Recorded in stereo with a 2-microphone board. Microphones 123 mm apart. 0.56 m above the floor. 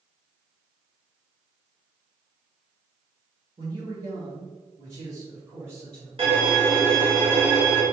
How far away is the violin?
About 1.4 m.